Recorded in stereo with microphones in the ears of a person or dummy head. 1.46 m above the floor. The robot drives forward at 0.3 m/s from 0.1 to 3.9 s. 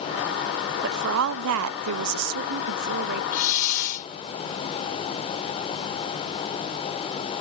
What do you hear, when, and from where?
0.8 s a woman speaking: 55° right (ahead or behind)
3.3 s a hiss: 50° left (ahead or behind); by 4.1 s 55° left (ahead or behind)